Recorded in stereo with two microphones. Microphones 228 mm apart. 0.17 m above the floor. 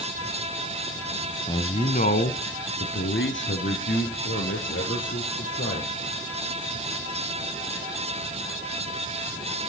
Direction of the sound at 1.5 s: 15° left (ahead or behind).